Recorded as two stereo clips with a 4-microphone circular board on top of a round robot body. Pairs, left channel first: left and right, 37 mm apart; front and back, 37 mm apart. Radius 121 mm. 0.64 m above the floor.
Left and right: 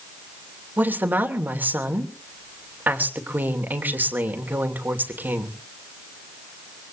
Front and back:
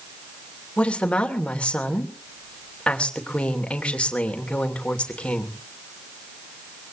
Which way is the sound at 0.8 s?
65° right.